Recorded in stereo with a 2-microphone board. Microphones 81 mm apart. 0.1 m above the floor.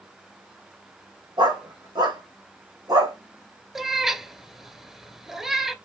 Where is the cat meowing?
5° right (ahead or behind), 0.6 m.